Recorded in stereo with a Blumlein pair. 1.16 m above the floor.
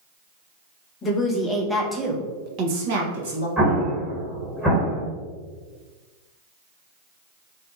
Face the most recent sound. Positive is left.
turn(degrees=-15)